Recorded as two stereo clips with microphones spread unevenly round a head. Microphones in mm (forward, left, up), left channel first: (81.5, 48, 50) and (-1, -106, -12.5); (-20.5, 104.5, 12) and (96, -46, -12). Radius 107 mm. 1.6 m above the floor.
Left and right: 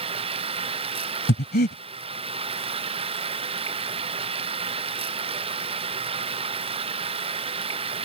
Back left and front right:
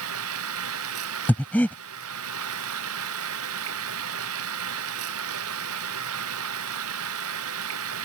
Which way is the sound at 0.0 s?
60° right.